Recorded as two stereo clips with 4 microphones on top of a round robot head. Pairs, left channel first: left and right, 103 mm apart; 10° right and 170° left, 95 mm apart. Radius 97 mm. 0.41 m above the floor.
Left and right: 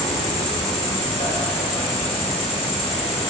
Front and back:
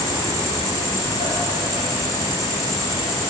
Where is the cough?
No cough in this recording.